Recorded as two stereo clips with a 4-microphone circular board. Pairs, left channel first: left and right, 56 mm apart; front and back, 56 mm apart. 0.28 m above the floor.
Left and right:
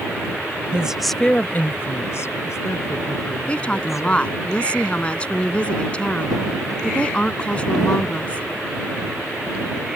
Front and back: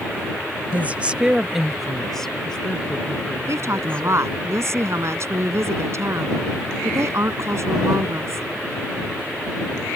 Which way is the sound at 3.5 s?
155° left.